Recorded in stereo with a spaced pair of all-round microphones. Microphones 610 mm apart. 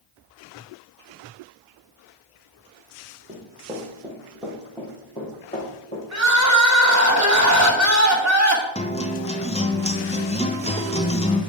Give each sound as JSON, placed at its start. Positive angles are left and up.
{"t": 3.3, "sound": "running footsteps", "side_deg": -10, "distance_m": 3.0}
{"t": 6.1, "sound": "crying", "side_deg": -25, "distance_m": 1.1}
{"t": 8.8, "sound": "a guitar", "side_deg": 10, "distance_m": 0.7}